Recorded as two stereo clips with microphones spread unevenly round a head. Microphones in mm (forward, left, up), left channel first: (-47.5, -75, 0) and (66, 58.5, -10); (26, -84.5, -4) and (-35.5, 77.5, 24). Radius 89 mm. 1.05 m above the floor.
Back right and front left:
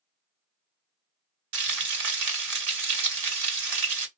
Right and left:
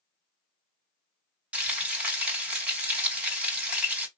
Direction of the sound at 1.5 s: 30° left.